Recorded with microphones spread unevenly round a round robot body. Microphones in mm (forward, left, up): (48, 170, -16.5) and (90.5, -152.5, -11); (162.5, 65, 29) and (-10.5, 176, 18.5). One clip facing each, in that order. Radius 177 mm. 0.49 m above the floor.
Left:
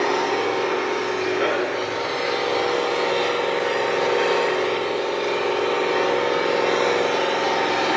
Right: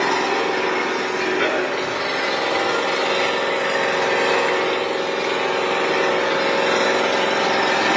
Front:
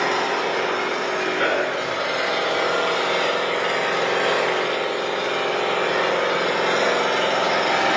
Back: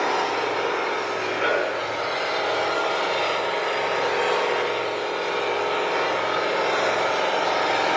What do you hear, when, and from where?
0.0 s an engine running: 30° right, 7.5 m